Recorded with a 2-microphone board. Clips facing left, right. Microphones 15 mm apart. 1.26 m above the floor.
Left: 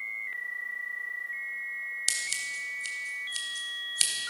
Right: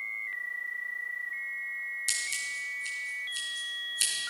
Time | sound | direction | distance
2.1 | scissors | 40° left (ahead or behind) | 2.5 m